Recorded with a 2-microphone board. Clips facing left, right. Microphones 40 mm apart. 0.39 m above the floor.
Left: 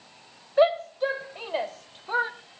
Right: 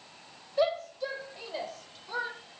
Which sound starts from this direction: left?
A shout, at 0.6 s.